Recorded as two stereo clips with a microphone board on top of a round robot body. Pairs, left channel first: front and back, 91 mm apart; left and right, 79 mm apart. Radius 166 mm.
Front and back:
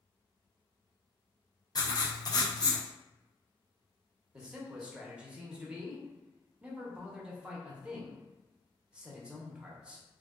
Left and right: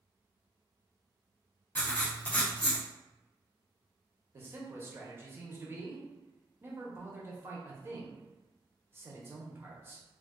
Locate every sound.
1.8 s writing: 25° left, 0.6 m
4.3 s a man speaking: 110° right, 1.0 m